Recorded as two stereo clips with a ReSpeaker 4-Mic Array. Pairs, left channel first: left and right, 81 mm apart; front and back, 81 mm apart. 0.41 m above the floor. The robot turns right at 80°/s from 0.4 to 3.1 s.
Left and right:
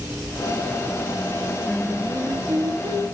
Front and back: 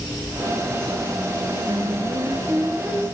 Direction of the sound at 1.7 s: 175° left.